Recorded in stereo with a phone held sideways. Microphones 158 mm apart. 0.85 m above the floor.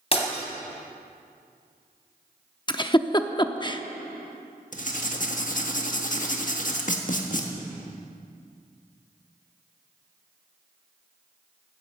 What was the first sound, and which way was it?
Breaking glass, 40° left (ahead or behind).